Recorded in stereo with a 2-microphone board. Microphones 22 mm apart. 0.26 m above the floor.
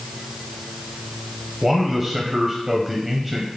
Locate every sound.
1.6 s a man speaking: 15° right (ahead or behind), 1.0 m